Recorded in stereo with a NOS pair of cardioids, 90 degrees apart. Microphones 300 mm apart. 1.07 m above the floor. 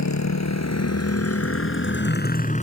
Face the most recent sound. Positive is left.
turn(degrees=25)